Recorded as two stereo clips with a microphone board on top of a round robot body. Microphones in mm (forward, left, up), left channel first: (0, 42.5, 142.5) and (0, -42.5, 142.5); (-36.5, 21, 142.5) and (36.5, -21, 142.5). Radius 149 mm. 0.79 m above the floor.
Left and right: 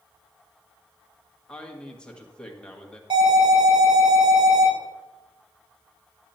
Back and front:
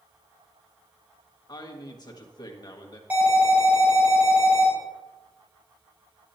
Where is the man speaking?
165° left, 1.7 m.